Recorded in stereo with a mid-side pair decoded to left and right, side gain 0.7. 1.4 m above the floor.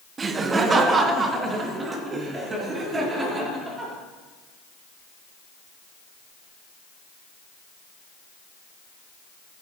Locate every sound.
0.2 s laughter: 30° right, 1.0 m; by 3.9 s 25° right, 4 m